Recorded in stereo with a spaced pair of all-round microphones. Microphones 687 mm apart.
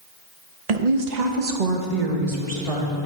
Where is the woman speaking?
65° right (ahead or behind), 1.0 m; by 3.1 s 50° right (ahead or behind), 2 m.